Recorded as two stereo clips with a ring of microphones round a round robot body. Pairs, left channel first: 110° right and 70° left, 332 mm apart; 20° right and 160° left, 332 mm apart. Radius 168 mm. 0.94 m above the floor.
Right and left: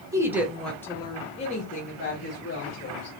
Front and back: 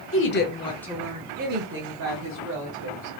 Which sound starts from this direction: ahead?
A woman speaking, at 0.1 s.